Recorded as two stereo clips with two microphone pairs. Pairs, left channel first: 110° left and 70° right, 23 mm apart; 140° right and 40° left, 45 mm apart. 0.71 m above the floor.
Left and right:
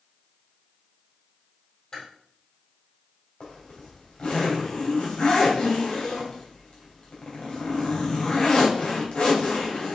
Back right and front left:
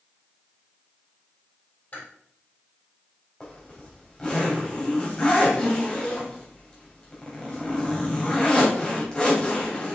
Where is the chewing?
165° left, 3.5 m.